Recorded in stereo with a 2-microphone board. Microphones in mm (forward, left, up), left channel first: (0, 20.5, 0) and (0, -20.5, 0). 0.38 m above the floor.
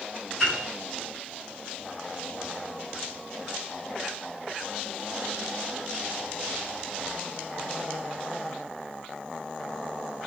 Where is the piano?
5° left (ahead or behind), 1.9 m.